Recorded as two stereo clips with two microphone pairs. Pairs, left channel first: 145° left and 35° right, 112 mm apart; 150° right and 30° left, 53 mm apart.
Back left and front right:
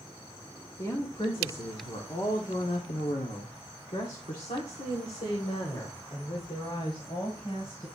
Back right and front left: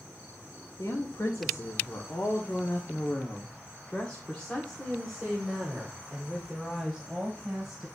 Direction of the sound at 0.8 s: 160° right.